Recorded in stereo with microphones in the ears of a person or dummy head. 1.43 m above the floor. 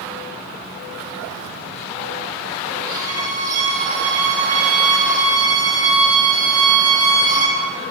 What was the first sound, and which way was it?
A violin, 20° right (ahead or behind).